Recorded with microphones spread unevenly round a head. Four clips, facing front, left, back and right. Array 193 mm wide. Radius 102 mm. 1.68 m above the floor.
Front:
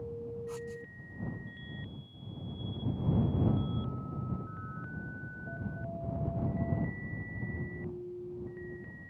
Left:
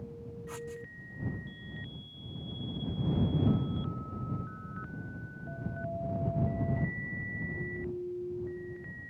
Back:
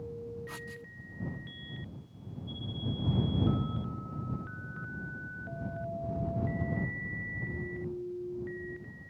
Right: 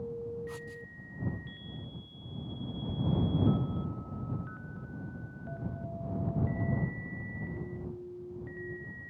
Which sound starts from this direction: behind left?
Writing, at 0.5 s.